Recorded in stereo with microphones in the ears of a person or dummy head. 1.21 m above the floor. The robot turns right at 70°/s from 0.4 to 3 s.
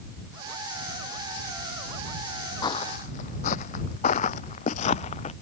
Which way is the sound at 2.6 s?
25° left (ahead or behind).